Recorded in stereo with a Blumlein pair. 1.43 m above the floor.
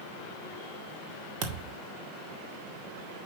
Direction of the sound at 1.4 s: 45° right.